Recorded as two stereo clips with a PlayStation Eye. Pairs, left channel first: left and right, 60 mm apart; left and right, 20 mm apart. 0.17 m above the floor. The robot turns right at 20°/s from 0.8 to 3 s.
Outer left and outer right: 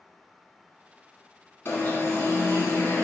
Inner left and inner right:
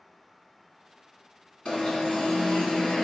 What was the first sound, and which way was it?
An alarm, 40° left (ahead or behind).